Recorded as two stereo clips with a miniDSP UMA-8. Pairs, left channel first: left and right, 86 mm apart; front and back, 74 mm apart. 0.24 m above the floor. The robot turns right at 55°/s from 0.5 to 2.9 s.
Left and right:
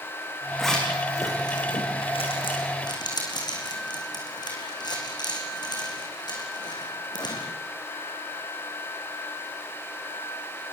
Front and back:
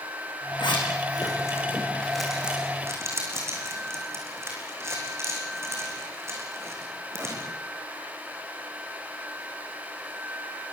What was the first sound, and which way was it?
A zipper, straight ahead.